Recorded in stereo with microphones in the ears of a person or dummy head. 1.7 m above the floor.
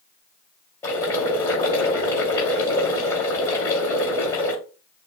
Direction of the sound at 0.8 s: 15° left (ahead or behind).